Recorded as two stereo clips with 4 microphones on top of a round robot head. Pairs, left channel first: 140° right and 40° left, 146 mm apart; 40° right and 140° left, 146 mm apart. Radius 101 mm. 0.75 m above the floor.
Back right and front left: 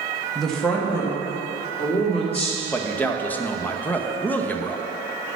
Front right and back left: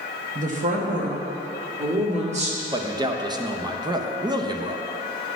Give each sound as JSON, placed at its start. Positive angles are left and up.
{"t": 0.3, "sound": "a woman speaking", "azimuth_deg": 130, "distance_m": 1.6}
{"t": 2.7, "sound": "a man speaking", "azimuth_deg": 155, "distance_m": 0.8}